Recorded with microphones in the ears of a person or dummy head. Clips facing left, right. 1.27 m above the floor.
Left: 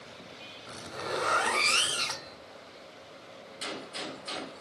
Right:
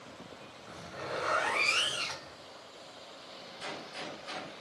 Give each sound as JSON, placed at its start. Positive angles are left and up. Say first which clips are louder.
{"t": 0.7, "sound": "a zipper", "louder": "left 4 dB", "side_deg": 55, "distance_m": 1.6}
{"t": 3.6, "sound": "a gunshot", "louder": "left 3 dB", "side_deg": 45, "distance_m": 1.5}